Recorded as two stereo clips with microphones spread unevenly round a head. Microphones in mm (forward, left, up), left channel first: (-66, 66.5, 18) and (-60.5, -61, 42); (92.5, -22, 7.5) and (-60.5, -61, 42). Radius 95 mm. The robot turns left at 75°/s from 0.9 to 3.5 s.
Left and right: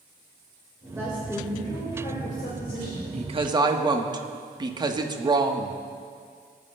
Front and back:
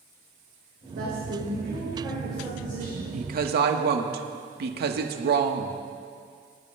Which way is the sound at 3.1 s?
120° right.